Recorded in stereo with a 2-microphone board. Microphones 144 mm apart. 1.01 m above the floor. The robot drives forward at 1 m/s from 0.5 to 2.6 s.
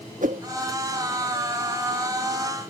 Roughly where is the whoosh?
Right.